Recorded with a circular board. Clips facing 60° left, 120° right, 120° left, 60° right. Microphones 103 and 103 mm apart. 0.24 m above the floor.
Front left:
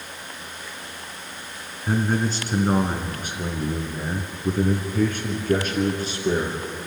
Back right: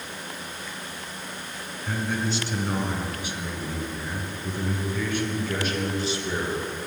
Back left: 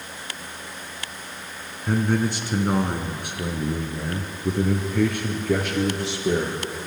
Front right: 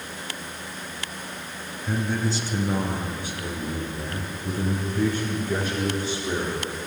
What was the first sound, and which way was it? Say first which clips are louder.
A man speaking: front left 5 dB, back left 4 dB; 100° left.